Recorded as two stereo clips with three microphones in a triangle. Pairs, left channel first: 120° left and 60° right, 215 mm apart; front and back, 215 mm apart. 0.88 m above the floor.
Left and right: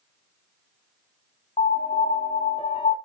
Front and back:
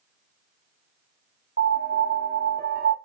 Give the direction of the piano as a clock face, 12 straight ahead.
6 o'clock.